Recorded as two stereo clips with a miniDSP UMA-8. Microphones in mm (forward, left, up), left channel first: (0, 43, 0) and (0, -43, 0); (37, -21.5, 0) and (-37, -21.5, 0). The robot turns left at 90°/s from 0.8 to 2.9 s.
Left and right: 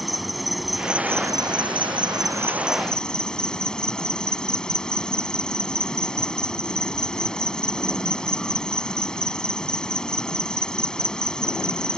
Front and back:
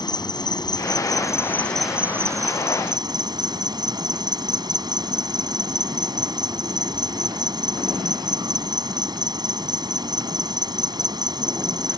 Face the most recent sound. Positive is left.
turn(degrees=170)